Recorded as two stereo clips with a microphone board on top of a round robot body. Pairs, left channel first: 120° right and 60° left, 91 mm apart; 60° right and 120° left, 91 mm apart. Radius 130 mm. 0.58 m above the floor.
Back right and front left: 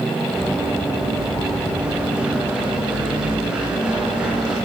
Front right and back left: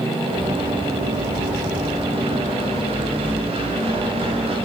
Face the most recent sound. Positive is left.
turn(degrees=140)